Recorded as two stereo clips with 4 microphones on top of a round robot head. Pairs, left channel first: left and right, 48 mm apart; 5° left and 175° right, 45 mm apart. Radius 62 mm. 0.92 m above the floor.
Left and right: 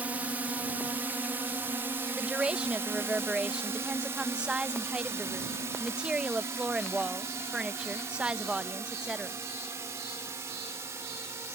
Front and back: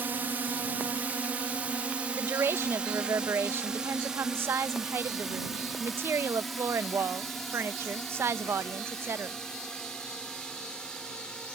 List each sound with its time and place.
0.0 s a drone: 140° right; by 11.6 s 70° right
2.1 s a woman speaking: 160° right